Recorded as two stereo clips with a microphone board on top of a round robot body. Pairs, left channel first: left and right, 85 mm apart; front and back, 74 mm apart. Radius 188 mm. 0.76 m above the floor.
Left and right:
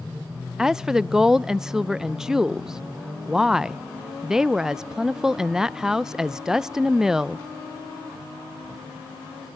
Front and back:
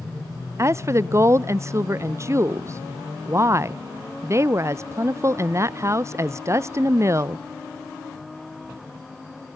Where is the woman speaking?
170° right, 0.5 m.